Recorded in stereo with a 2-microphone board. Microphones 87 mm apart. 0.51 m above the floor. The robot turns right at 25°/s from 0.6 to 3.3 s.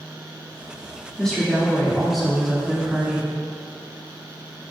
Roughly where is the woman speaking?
Centre.